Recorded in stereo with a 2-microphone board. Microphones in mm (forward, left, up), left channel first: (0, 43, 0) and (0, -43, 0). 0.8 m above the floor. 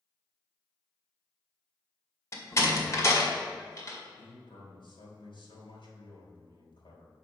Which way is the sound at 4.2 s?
75° left (ahead or behind).